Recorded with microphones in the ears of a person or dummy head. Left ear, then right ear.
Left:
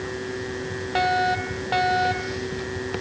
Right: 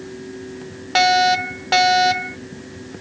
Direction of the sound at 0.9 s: 55° right (ahead or behind).